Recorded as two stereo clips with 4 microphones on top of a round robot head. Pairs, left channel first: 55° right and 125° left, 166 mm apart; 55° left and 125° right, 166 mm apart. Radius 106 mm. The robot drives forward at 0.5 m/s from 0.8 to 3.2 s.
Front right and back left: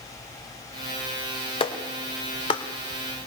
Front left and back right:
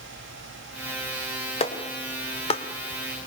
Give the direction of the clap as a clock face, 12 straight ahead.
12 o'clock.